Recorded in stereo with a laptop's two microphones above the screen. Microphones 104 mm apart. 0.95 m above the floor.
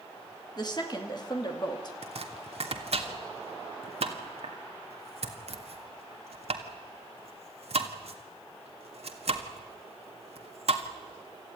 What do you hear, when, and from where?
0.6 s a woman speaking: 40° left (ahead or behind), 2 m
2.0 s chopping: 70° right (ahead or behind), 1.8 m